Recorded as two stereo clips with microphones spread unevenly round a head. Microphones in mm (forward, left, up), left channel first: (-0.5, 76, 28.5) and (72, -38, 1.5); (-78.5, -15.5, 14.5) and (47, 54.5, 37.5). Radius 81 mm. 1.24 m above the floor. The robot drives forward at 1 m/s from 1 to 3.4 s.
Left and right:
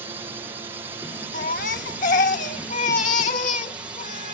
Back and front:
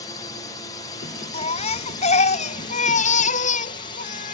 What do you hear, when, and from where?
0.0 s a drone: 110° right; by 4.3 s 125° right
1.3 s a baby crying: 160° left; by 4.3 s 170° left